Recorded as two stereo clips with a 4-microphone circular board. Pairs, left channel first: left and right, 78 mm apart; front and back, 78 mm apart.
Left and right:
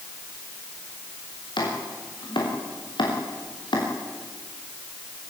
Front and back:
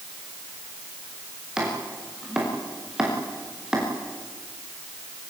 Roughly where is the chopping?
Left.